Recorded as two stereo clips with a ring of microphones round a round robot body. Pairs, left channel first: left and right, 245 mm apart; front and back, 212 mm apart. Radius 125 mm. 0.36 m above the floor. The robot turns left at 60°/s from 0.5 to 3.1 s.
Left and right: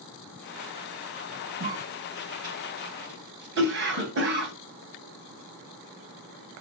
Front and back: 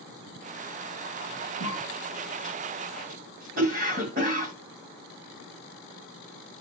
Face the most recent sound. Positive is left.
turn(degrees=-130)